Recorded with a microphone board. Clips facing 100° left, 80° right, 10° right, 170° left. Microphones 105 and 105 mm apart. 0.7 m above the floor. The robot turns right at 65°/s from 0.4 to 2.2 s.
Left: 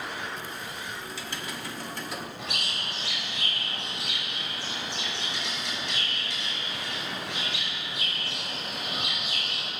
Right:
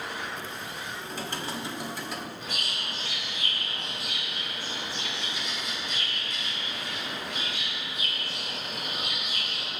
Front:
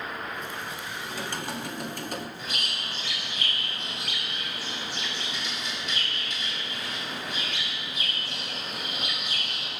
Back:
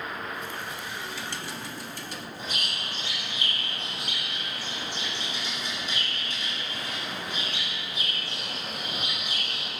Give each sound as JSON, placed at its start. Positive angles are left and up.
{"t": 1.1, "sound": "typing on a keyboard", "azimuth_deg": -60, "distance_m": 1.2}
{"t": 2.4, "sound": "a bird", "azimuth_deg": 115, "distance_m": 6.0}